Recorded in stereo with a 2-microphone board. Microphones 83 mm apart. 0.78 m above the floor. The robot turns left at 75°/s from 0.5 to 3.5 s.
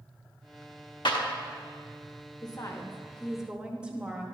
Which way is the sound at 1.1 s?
60° left (ahead or behind).